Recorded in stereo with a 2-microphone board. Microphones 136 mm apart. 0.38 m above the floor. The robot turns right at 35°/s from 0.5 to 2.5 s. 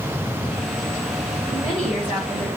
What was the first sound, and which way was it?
A woman speaking, 25° right.